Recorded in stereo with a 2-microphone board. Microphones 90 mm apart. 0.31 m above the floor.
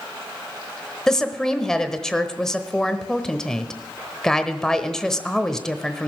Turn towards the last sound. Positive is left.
turn(degrees=5)  # may be behind; listen again after turning